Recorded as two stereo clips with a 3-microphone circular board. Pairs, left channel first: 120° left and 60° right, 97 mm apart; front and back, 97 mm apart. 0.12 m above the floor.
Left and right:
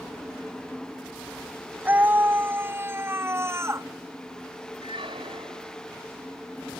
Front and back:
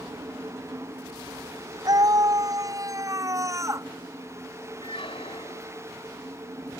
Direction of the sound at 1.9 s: 130° right.